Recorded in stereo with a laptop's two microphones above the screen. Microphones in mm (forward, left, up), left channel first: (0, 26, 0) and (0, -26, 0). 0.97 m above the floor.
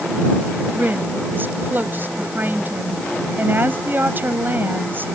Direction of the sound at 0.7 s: 40° right (ahead or behind).